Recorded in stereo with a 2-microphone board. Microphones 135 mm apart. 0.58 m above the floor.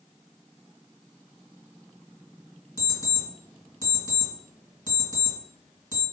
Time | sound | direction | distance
2.8 | an alarm clock | 35° left (ahead or behind) | 1.8 m